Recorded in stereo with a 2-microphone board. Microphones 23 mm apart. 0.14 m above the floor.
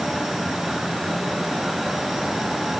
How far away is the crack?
No crack in this recording.